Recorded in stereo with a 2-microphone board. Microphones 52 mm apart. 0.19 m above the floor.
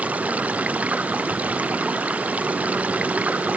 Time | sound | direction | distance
0.0 | running water | 30° right (ahead or behind) | ?